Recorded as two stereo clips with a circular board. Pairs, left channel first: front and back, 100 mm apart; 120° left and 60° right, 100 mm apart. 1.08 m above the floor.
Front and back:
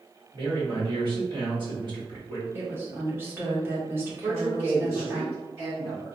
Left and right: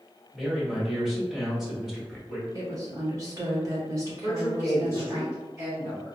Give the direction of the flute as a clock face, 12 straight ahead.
I don't hear a flute.